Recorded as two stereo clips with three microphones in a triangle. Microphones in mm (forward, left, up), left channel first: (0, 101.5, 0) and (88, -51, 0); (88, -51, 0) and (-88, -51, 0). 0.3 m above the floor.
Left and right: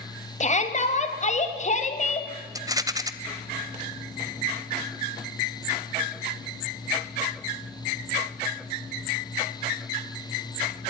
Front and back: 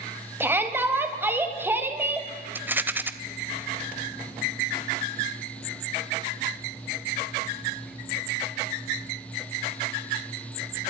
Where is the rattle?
110° right, 1.1 m.